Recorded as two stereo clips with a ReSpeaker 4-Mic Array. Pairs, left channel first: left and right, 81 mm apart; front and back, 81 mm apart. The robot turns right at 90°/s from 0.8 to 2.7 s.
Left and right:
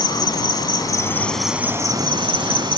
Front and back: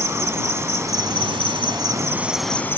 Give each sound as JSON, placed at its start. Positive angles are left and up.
{"t": 0.0, "sound": "an insect", "azimuth_deg": 125}